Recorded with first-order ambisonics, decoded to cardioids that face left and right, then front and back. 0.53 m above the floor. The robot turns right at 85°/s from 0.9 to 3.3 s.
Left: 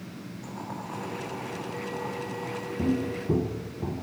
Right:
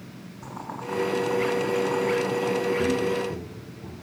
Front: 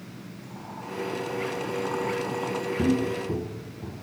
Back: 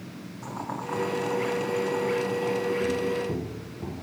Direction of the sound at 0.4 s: 140° right.